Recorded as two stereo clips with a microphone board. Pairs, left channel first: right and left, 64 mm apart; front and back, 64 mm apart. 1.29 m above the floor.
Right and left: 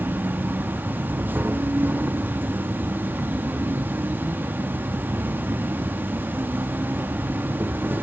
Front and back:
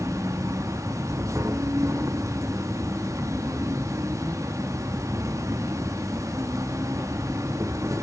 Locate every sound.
0.0 s an insect: 150° left, 1.4 m